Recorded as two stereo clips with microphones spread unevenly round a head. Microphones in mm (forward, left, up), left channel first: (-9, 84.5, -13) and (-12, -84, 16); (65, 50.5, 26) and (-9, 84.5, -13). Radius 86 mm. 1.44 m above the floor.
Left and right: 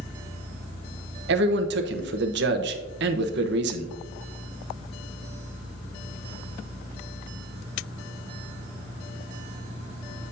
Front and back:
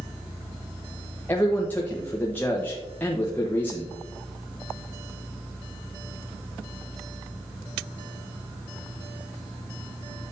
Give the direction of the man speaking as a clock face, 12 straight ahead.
3 o'clock.